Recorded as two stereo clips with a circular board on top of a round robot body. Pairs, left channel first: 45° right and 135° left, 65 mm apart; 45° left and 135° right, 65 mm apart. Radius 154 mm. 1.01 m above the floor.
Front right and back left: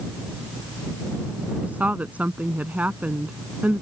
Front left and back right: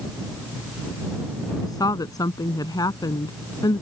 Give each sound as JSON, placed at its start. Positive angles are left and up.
{"t": 1.6, "sound": "a woman speaking", "azimuth_deg": 70}